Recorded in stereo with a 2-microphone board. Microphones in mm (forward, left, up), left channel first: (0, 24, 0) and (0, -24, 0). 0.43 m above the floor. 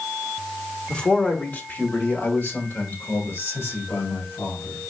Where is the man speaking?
20° left (ahead or behind), 1.0 m; by 4.8 s 65° left (ahead or behind), 2.5 m.